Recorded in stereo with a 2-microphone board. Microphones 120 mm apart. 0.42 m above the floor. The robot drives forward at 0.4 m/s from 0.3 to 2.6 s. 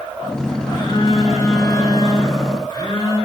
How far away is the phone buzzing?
About 6.5 m.